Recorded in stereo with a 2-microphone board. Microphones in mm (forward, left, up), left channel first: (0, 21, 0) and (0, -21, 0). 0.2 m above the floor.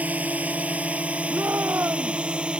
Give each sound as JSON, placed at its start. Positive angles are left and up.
{"t": 0.0, "sound": "a drone", "side_deg": -40}
{"t": 1.3, "sound": "a shout", "side_deg": -70}